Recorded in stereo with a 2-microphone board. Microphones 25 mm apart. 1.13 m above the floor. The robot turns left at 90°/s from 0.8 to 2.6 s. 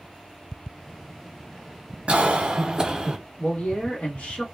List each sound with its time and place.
2.1 s a cough: 95° right, 0.7 m; by 3.2 s 140° right, 0.7 m
3.4 s a man speaking: 70° left (ahead or behind), 1.1 m